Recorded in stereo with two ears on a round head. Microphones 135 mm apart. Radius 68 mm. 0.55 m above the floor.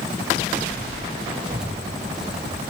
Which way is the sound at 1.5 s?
Centre (ahead or behind).